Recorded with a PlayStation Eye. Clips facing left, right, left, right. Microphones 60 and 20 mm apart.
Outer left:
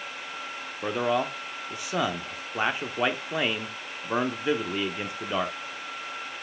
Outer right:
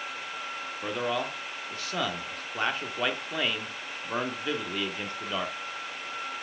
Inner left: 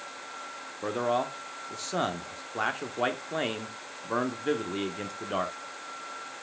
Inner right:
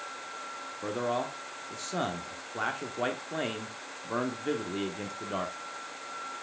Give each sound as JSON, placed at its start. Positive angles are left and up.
{"t": 0.8, "sound": "a man speaking", "side_deg": 15, "distance_m": 0.7}